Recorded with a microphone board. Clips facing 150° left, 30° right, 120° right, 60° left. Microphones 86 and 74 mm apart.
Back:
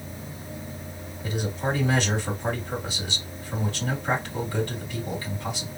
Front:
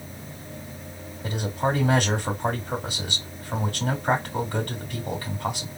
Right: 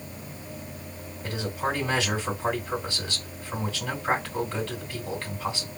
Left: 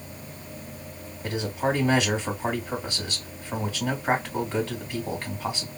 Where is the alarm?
I don't hear an alarm.